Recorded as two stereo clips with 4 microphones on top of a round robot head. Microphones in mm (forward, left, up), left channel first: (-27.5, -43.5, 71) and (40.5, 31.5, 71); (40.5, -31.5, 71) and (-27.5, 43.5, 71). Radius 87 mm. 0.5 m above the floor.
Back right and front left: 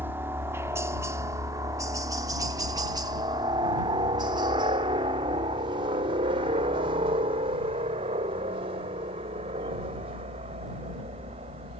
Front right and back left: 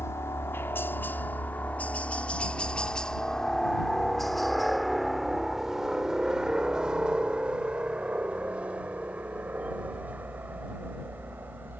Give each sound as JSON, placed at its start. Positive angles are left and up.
{"t": 0.0, "sound": "a helicopter", "azimuth_deg": -5}